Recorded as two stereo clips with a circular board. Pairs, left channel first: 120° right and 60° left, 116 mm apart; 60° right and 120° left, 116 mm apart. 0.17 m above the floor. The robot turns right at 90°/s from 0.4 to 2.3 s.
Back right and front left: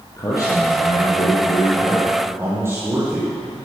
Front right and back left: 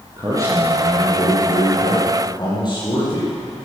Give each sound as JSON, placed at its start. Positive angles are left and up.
{"t": 0.2, "sound": "a man speaking", "azimuth_deg": 180, "distance_m": 4.5}